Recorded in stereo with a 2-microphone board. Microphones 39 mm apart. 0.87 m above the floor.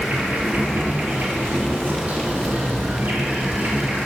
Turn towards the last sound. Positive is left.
turn(degrees=-45)  # may be behind; listen again after turning